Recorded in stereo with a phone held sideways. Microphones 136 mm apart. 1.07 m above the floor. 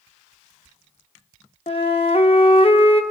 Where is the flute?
45° left (ahead or behind), 0.7 m.